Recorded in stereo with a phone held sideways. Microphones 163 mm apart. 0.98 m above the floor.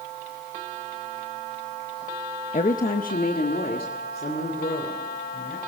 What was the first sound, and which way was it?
A woman speaking, 50° left (ahead or behind).